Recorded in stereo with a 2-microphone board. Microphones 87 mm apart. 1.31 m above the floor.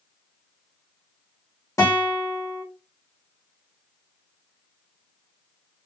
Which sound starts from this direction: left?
A guitar, at 1.8 s.